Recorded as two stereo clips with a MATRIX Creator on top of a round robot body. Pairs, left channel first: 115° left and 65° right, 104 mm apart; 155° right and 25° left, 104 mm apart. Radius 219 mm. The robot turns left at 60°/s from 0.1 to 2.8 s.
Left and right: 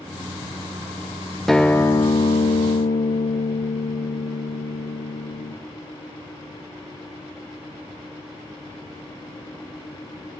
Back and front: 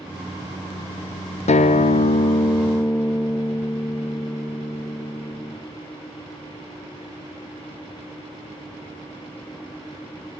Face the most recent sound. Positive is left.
turn(degrees=120)